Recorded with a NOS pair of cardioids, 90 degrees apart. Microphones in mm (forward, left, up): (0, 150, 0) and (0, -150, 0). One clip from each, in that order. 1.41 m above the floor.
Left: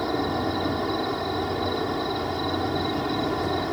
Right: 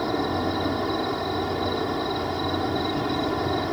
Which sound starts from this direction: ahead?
An insect, at 0.0 s.